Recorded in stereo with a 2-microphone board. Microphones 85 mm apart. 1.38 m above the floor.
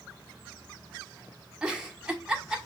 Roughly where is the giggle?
Centre.